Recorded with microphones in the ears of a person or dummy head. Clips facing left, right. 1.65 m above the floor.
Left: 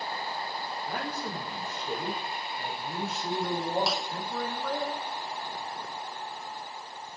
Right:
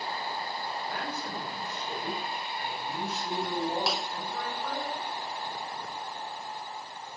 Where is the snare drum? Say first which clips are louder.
Even; 5° right (ahead or behind), 1.5 m.